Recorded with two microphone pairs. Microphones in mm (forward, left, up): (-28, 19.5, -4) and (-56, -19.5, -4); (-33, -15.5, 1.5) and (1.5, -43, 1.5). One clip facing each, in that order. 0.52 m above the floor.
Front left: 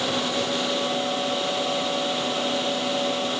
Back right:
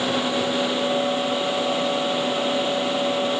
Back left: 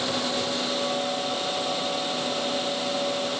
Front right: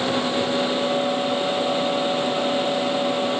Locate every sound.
Only background noise.